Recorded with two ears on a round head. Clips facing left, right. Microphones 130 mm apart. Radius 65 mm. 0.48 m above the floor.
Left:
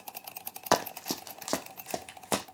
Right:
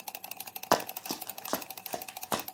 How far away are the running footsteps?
About 0.9 m.